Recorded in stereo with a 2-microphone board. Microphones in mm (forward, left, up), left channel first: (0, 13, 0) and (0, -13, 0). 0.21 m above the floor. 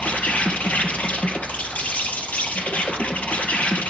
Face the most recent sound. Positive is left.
turn(degrees=80)